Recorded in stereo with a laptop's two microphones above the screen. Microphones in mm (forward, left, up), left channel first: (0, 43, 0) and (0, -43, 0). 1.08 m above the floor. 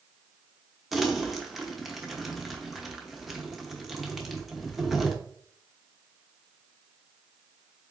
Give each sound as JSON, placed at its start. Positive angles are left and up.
{"t": 0.9, "sound": "crumpling", "side_deg": 0, "distance_m": 0.7}